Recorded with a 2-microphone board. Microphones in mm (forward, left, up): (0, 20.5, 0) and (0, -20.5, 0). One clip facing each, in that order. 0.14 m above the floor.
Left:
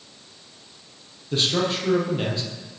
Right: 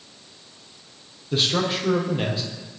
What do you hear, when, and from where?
1.3 s a man speaking: 5° right (ahead or behind), 4 m